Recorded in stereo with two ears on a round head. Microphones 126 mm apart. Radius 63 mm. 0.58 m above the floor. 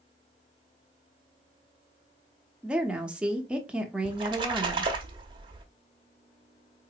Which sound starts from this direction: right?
A splash, at 4.0 s.